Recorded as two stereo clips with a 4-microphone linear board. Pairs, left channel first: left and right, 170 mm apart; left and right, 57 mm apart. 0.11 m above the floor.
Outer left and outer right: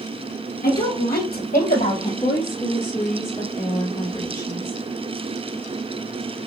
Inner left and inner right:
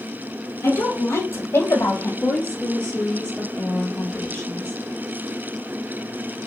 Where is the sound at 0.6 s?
65° left (ahead or behind), 2.5 m; by 2.1 s 60° left (ahead or behind), 3 m.